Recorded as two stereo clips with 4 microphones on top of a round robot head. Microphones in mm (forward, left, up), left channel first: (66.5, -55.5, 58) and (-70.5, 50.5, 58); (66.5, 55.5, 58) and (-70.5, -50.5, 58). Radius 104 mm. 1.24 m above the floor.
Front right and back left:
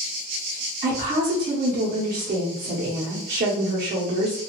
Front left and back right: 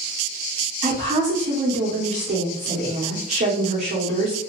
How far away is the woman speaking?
About 0.9 m.